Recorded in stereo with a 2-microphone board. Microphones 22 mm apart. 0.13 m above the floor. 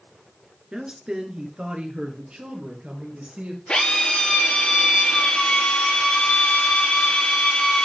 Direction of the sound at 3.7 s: 55° left (ahead or behind).